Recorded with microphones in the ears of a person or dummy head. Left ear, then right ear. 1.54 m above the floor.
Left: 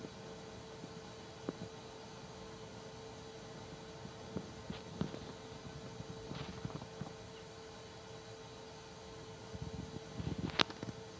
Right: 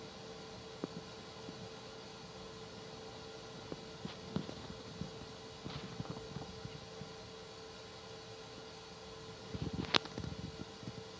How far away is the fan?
About 1.3 m.